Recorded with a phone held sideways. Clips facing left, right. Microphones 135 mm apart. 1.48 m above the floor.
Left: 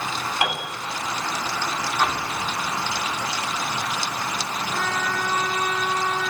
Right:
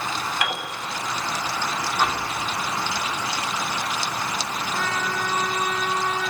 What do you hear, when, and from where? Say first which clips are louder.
0.4 s a piano: left 2 dB; 25° left (ahead or behind), 7.5 m
2.0 s an explosion: even; 5° right (ahead or behind), 4 m
4.7 s a trumpet: left 1 dB; centre (ahead or behind), 4 m